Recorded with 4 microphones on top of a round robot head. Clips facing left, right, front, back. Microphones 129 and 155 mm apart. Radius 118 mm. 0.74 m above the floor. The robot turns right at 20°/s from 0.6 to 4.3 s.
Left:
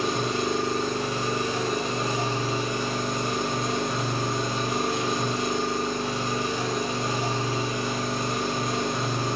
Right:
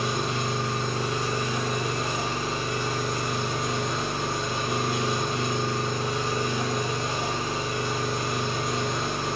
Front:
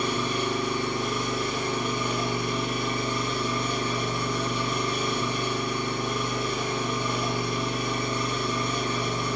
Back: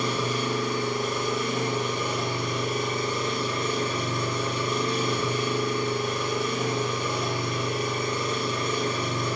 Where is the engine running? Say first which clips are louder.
Left 2 dB, even; 130° left, 1.5 m; by 9.4 s 160° right, 1.5 m.